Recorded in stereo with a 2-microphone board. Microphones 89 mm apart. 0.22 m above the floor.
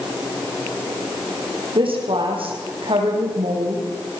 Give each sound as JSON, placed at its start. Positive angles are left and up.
{"t": 1.8, "sound": "a woman speaking", "side_deg": -80, "distance_m": 9.5}